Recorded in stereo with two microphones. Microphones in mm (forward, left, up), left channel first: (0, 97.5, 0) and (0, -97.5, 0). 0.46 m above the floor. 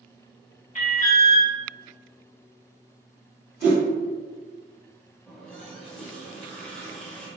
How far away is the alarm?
About 0.9 m.